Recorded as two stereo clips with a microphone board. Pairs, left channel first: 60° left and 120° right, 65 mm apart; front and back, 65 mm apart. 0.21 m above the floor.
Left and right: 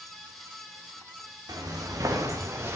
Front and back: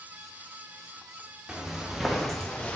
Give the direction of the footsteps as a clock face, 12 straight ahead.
3 o'clock.